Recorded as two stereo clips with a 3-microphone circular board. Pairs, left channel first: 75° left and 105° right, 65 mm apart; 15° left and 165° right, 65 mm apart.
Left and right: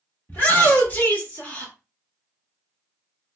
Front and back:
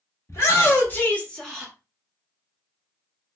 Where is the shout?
25° left, 1.4 m; by 1.7 s 105° left, 1.0 m.